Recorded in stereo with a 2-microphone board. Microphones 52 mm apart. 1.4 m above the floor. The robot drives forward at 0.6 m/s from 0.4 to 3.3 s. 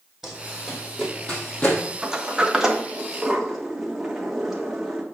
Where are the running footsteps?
Centre (ahead or behind), 3 m; by 1.8 s 35° left (ahead or behind), 2.5 m.